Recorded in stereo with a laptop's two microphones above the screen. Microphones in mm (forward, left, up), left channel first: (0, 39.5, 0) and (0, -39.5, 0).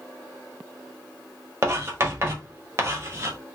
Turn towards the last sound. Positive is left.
turn(degrees=-35)  # may be behind; listen again after turning